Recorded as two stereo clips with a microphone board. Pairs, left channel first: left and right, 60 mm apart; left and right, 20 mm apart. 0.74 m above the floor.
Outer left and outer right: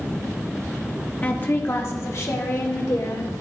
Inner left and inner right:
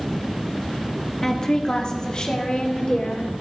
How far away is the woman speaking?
About 0.8 m.